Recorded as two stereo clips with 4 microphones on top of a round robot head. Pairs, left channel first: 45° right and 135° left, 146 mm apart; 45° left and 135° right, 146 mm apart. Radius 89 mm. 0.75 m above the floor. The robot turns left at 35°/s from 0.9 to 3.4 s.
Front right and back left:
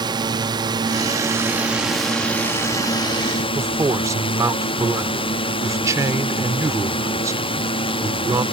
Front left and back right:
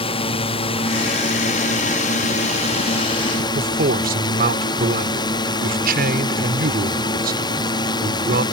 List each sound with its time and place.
0.0 s a drone: 80° left; by 8.5 s 5° right
3.5 s a man speaking: 155° right